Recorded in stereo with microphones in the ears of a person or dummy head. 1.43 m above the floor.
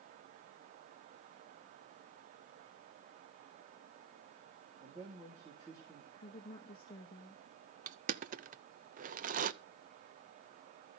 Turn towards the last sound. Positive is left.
turn(degrees=-40)  # may be behind; listen again after turning